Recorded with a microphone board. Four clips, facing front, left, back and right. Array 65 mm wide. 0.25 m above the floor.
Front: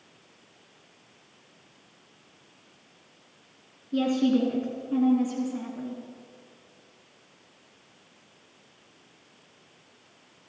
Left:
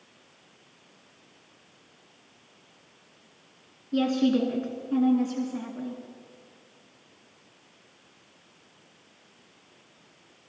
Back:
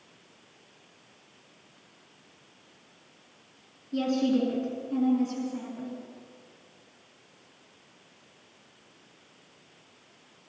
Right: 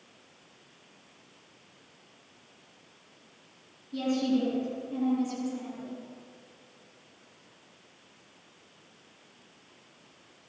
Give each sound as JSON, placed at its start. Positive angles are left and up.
{"t": 3.9, "sound": "a woman speaking", "azimuth_deg": 70, "distance_m": 3.0}